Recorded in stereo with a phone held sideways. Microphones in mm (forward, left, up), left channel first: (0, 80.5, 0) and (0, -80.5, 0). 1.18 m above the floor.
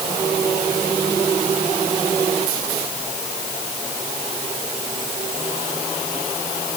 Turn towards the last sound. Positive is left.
No sound to turn to.